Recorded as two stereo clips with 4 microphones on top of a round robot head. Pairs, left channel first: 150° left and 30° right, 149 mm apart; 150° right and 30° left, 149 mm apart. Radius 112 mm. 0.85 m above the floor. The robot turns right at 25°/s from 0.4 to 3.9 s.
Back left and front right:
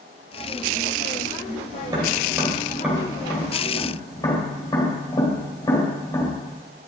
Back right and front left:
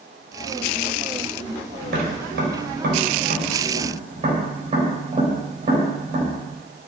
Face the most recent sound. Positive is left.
turn(degrees=80)